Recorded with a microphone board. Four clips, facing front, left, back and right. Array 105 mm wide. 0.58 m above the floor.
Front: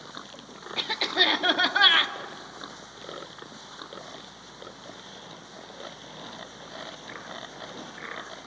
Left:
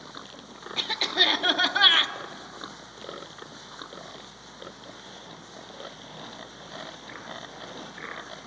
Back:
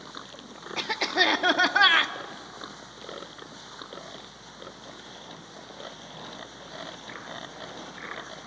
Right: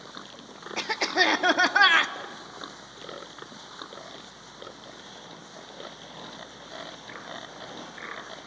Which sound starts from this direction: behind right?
A cough, at 0.8 s.